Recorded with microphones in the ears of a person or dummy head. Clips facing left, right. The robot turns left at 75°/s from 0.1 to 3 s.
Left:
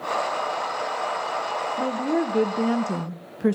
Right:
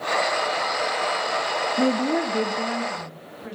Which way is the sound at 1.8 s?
150° right.